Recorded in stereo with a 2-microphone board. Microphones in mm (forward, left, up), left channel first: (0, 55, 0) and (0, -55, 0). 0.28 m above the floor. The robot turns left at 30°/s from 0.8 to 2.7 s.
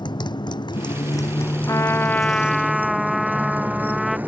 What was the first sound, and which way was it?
A motorcycle, 40° left.